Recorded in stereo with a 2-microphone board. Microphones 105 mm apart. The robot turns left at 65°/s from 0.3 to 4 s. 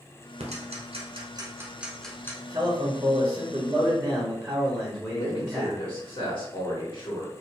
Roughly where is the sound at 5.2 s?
Left.